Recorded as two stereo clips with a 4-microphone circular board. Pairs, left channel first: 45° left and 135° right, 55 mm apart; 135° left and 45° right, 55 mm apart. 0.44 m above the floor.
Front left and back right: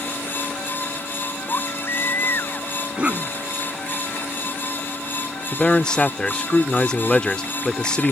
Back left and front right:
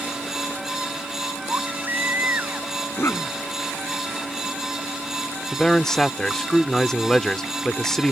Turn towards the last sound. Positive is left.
turn(degrees=80)